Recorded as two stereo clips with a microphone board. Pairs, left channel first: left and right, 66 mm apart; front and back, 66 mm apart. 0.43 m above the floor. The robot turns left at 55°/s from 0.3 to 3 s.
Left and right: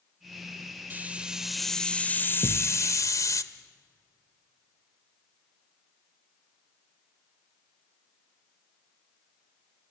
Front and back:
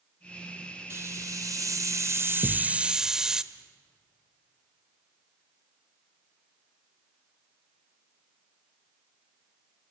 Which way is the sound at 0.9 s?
145° right.